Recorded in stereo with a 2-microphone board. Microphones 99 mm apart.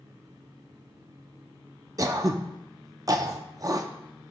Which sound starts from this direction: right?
Throat clearing, at 2.0 s.